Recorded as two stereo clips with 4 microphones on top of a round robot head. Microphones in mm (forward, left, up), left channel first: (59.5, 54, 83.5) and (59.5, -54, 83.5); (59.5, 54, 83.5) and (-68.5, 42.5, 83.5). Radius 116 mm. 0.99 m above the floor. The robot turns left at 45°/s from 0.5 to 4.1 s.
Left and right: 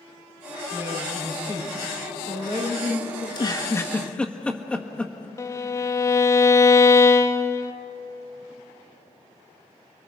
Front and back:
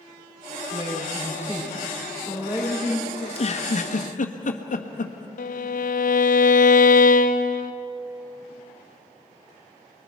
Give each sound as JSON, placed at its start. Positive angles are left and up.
{"t": 0.7, "sound": "a woman speaking", "azimuth_deg": -15, "distance_m": 8.5}
{"t": 3.2, "sound": "a giggle", "azimuth_deg": 50, "distance_m": 1.7}
{"t": 5.4, "sound": "a violin", "azimuth_deg": 25, "distance_m": 0.7}